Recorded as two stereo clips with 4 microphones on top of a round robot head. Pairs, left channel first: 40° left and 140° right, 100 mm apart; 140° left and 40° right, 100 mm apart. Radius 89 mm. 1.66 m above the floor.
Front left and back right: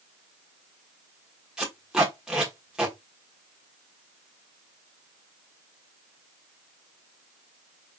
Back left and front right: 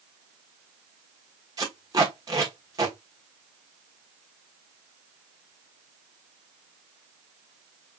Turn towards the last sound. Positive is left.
turn(degrees=-65)